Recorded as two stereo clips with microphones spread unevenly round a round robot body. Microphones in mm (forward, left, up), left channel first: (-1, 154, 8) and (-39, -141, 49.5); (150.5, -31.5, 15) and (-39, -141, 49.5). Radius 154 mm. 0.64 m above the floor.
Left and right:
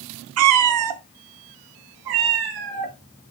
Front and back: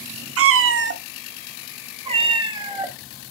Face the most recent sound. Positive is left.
turn(degrees=-75)